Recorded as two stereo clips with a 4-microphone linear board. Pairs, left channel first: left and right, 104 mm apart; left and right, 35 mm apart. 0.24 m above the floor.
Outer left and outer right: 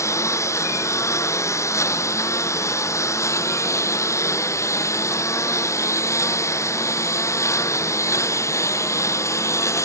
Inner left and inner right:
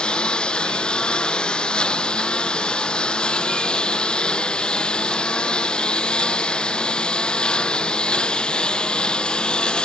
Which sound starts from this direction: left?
A lawn mower, at 0.0 s.